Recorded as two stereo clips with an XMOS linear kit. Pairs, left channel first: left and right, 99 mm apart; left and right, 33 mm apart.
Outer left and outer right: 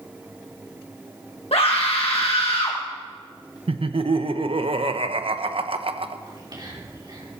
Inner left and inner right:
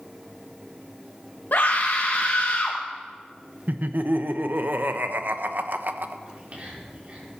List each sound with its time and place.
1.5 s a scream: 75° left (ahead or behind), 1.6 m
3.7 s laughter: 70° right (ahead or behind), 1.1 m
6.3 s whispering: 45° right (ahead or behind), 5 m